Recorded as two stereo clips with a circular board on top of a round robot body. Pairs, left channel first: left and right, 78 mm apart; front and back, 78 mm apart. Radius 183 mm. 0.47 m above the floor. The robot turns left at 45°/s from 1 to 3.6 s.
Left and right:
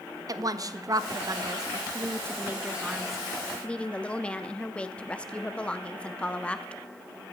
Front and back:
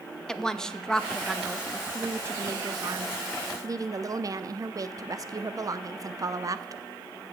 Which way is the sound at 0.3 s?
80° right.